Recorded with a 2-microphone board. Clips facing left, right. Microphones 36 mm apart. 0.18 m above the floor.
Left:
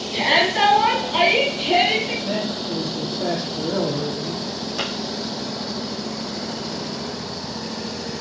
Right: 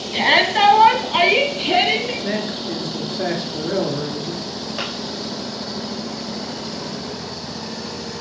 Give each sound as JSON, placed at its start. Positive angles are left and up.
{"t": 0.1, "sound": "a shout", "side_deg": -25, "distance_m": 1.2}
{"t": 2.2, "sound": "a man speaking", "side_deg": -60, "distance_m": 3.0}
{"t": 4.8, "sound": "a pop", "side_deg": -20, "distance_m": 4.5}